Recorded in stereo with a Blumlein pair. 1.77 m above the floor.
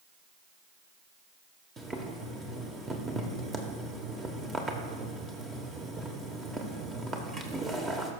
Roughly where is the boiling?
Ahead.